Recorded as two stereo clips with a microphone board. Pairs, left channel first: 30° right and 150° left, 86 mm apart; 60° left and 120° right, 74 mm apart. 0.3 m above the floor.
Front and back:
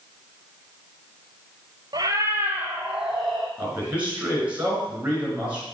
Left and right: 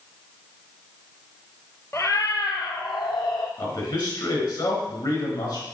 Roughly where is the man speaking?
Left.